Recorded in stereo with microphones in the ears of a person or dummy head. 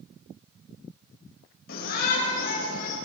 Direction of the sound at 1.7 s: 55° left (ahead or behind).